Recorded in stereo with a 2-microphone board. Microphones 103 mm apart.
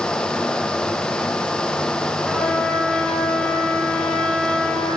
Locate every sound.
2.2 s a trumpet: 5° left (ahead or behind), 2.0 m